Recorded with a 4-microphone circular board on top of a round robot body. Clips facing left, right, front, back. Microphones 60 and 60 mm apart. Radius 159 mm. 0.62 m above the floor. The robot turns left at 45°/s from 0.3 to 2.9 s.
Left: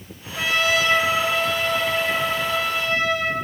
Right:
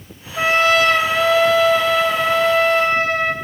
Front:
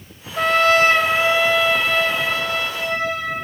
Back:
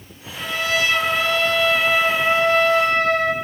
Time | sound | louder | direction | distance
0.4 | a trumpet | right 6 dB, front 7 dB | 30° right | 0.8 m